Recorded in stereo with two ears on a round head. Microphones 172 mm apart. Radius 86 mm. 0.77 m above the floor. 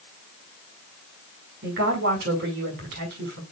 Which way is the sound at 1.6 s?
55° right (ahead or behind).